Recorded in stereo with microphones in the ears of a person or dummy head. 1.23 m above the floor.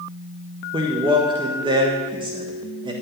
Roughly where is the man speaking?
Right.